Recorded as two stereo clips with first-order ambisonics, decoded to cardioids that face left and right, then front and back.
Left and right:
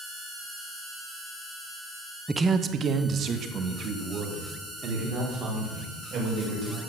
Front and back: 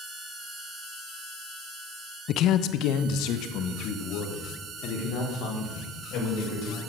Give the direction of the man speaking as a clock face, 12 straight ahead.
12 o'clock.